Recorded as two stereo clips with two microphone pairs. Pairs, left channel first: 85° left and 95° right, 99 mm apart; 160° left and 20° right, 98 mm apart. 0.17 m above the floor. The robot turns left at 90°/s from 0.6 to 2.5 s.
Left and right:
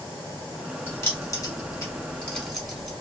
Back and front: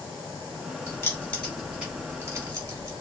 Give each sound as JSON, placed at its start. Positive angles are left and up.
{"t": 0.9, "sound": "keys jangling", "azimuth_deg": 135, "distance_m": 1.1}